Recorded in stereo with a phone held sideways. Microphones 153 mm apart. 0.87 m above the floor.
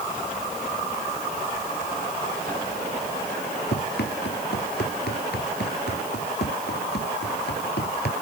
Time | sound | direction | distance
3.7 | running footsteps | 85° left | ?